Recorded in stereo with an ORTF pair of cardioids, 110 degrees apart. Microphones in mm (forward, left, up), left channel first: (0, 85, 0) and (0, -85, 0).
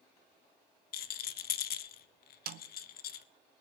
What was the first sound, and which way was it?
A rattle, 65° left.